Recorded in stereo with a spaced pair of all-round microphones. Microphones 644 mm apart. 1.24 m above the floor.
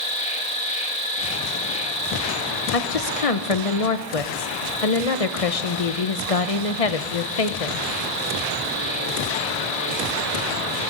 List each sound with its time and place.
0.0 s an insect: 10° left (ahead or behind), 3 m
2.7 s a woman speaking: 60° left (ahead or behind), 1.0 m